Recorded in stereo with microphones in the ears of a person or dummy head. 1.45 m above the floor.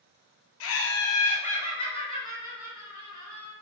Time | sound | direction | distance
0.6 | laughter | 75° left (ahead or behind) | 0.5 m